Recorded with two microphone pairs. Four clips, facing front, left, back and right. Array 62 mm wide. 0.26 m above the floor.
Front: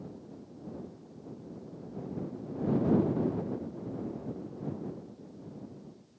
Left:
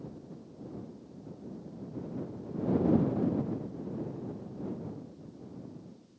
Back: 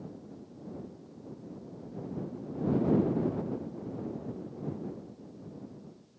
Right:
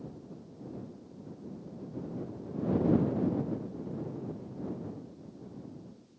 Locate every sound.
Only background noise.